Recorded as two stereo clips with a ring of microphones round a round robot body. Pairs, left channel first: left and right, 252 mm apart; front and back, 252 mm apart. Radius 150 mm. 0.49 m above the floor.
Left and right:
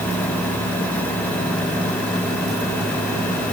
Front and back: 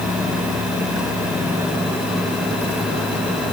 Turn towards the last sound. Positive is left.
No sound to turn to.